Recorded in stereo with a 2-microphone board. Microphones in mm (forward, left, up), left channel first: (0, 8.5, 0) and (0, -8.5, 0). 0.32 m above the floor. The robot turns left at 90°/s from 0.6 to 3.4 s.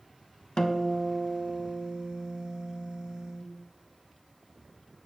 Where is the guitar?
45° left, 0.5 m; by 3.5 s 155° left, 0.5 m.